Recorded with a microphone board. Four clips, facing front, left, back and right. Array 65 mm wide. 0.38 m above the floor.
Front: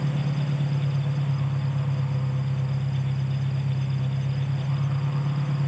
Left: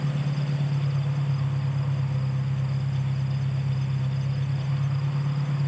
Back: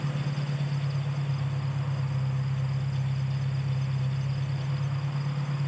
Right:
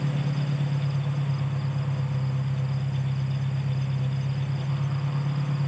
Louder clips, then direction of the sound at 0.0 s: Even, front 4 dB; 25° right.